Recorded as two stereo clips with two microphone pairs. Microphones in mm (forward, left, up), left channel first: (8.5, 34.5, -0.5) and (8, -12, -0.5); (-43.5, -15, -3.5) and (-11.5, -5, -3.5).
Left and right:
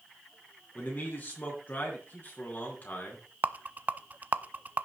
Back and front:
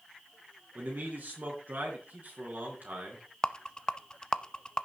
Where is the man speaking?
40° left, 4 m.